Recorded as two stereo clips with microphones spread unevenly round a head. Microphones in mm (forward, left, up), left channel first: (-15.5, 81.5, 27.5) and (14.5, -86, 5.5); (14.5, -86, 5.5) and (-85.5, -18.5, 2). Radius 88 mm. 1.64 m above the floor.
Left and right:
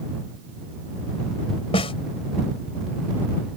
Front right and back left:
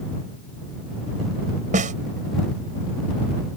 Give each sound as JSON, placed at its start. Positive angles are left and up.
{"t": 1.7, "sound": "a snare drum", "azimuth_deg": 155}